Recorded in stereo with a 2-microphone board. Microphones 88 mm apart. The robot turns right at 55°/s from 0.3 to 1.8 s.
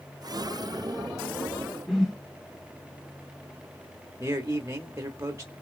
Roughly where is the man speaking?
Right.